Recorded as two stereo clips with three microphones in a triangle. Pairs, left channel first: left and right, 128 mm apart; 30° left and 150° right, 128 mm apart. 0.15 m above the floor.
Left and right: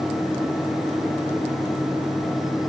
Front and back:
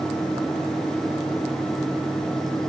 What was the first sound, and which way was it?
Only background noise.